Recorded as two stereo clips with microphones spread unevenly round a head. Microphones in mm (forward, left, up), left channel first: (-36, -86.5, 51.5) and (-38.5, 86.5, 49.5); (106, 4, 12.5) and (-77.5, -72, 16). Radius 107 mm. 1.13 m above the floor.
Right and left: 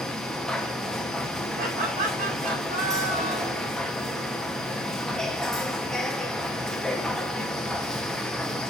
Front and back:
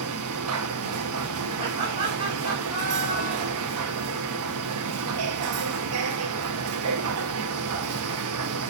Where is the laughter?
140° left, 4.5 m.